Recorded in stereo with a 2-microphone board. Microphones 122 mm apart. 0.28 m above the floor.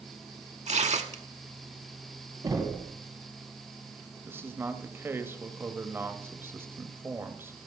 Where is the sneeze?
No sneeze in this recording.